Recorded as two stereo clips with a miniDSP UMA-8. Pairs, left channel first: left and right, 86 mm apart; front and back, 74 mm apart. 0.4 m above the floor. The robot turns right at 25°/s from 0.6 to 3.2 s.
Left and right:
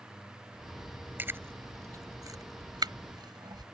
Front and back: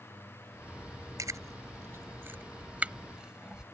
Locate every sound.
1.2 s chewing: 155° right; by 3.6 s 105° right